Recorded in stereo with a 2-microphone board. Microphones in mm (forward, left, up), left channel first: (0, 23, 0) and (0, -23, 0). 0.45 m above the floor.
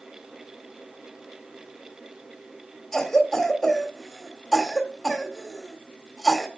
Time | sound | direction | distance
2.9 | a cough | 10° left (ahead or behind) | 1.4 m